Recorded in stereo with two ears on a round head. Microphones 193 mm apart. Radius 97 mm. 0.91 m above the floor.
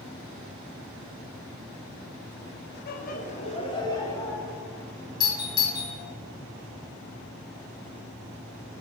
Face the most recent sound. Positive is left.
turn(degrees=20)  # may be behind; listen again after turning